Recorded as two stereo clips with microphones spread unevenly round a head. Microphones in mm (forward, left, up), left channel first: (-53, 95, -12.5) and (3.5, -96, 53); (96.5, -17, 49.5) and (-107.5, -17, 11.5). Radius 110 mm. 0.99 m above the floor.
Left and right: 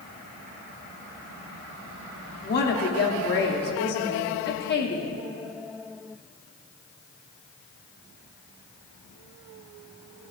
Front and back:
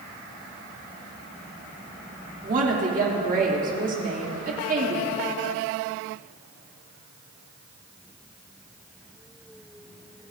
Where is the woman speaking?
135° left, 2.5 m.